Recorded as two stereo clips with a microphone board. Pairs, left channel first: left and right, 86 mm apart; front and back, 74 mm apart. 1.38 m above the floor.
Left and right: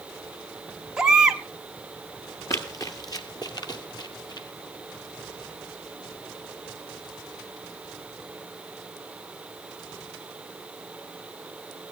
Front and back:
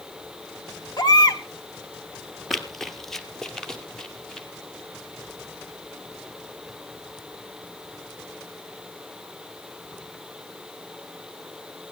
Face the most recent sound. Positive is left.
turn(degrees=80)